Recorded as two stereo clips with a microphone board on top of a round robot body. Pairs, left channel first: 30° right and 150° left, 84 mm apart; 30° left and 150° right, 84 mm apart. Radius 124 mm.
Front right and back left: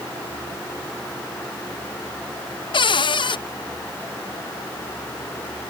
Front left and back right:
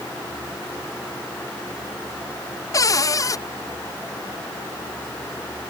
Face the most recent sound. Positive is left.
turn(degrees=-15)